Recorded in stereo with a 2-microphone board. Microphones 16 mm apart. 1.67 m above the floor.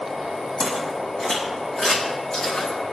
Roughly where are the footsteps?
Left.